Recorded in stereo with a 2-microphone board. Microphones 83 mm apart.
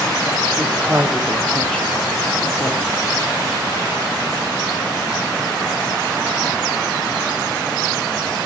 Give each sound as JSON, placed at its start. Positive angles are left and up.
{"t": 0.6, "sound": "a woman speaking", "side_deg": -25, "distance_m": 1.8}